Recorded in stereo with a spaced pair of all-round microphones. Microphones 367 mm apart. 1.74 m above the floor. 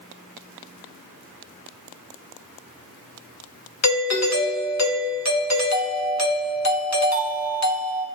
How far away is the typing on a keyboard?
I don't hear typing on a keyboard.